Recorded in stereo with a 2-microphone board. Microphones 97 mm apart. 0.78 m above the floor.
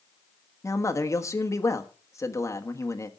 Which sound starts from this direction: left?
A man speaking, at 0.6 s.